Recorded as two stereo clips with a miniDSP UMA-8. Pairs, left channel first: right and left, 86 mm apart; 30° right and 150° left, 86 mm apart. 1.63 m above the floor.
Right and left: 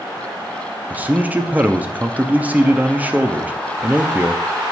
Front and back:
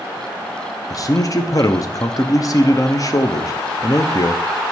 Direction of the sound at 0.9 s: 20° left.